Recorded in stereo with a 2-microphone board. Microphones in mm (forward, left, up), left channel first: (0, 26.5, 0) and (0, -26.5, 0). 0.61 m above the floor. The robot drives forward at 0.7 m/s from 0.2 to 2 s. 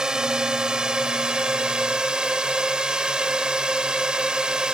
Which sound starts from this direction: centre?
A drone, at 0.0 s.